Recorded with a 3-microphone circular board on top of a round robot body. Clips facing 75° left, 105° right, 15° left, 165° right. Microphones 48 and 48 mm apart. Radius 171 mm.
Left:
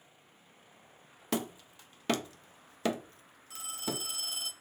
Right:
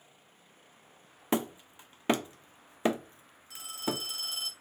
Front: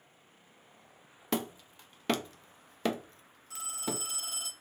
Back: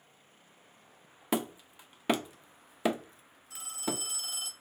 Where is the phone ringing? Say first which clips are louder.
Right 3 dB, back 1 dB; 5° right, 1.8 m.